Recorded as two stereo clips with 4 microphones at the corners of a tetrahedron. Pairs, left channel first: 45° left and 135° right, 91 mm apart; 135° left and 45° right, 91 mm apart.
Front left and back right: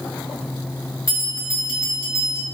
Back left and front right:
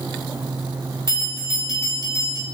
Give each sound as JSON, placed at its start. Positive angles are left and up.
{"t": 1.1, "sound": "a bell", "azimuth_deg": 90, "distance_m": 1.7}